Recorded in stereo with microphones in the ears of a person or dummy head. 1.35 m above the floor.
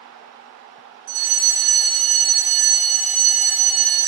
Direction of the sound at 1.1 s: 75° right (ahead or behind).